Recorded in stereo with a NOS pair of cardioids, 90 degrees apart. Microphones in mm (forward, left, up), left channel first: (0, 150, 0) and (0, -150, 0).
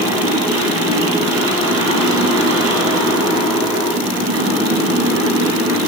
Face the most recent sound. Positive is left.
turn(degrees=-55)